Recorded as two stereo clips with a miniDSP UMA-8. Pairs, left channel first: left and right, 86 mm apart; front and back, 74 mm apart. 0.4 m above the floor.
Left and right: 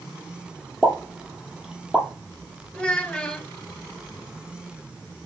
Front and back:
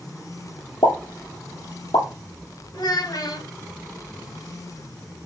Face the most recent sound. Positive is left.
turn(degrees=15)